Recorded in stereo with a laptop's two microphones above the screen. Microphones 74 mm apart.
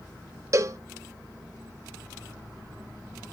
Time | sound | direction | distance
0.5 | a cowbell | 40° right (ahead or behind) | 0.6 m